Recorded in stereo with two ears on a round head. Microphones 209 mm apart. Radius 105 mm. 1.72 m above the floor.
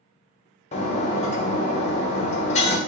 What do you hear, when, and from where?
0.7 s breaking glass: 30° left (ahead or behind), 0.9 m